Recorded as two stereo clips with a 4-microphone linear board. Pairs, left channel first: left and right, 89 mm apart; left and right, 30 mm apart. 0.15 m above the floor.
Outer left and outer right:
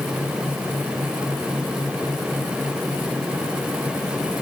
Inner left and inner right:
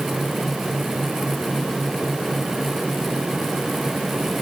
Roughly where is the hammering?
I don't hear hammering.